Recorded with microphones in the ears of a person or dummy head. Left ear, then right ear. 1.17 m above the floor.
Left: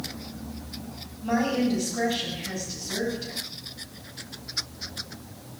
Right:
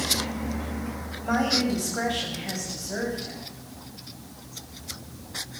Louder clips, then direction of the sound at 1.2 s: Right 1 dB; 45° right (ahead or behind).